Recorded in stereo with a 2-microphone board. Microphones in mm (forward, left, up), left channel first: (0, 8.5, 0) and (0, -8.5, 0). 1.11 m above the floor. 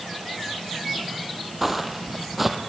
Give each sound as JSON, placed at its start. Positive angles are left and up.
{"t": 1.6, "sound": "footsteps", "side_deg": -10, "distance_m": 2.5}